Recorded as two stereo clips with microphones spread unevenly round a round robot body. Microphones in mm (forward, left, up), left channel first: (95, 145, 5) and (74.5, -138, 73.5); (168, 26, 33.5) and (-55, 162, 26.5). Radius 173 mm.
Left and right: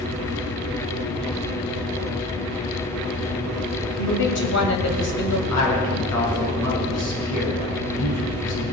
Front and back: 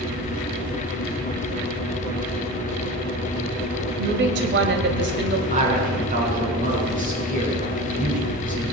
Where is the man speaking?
90° left, 5 m.